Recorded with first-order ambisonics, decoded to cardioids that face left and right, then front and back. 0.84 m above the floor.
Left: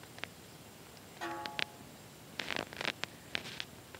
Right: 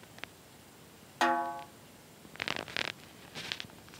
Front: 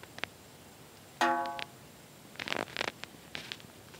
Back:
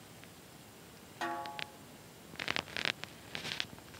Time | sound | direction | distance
1.2 | a snare drum | 60° right | 1.0 m